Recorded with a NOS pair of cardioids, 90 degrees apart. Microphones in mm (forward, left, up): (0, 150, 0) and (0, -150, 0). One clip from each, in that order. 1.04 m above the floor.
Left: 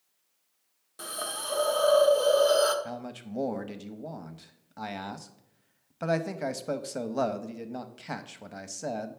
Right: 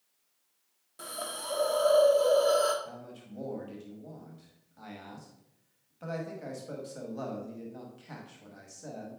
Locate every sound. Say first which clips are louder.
1.0 s a hiss: left 3 dB; 15° left, 1.0 m
2.9 s a man speaking: left 7 dB; 65° left, 1.0 m